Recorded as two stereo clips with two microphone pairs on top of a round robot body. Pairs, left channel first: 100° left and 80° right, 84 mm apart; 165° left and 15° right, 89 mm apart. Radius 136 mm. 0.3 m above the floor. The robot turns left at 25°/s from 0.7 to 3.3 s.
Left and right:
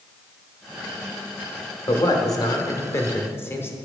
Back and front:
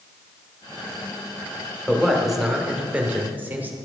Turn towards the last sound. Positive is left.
turn(degrees=50)